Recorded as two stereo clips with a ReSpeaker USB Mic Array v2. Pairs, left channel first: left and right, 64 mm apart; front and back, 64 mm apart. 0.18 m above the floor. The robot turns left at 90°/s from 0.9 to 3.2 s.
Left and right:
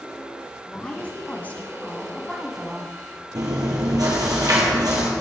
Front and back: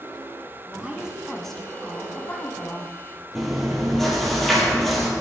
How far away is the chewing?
About 2.5 m.